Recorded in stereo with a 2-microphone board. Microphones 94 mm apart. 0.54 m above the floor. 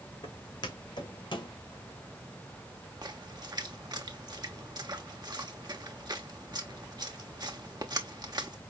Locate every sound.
0.2 s footsteps: 50° left (ahead or behind), 2 m; by 1.5 s 55° left (ahead or behind), 1.5 m
3.0 s a splash: 45° right (ahead or behind), 1.0 m